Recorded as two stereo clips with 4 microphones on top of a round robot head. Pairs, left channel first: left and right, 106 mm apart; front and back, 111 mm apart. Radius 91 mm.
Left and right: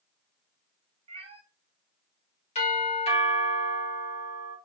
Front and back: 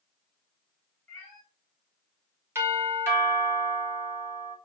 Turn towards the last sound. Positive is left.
turn(degrees=115)